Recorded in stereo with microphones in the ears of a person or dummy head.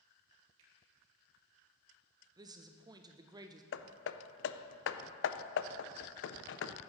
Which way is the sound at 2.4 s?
20° right (ahead or behind).